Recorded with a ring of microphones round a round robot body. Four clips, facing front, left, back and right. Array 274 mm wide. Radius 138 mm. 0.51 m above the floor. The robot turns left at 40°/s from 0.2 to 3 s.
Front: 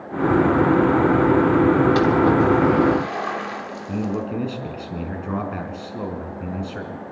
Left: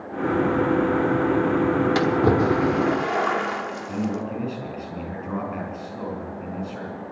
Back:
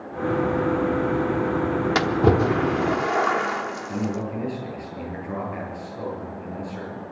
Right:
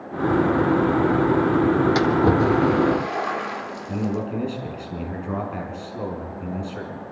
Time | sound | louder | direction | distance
1.9 | a splash | right 1 dB, front 3 dB | 170° right | 1.2 m
3.9 | a man speaking | right 3 dB, front 5 dB | 5° right | 5.5 m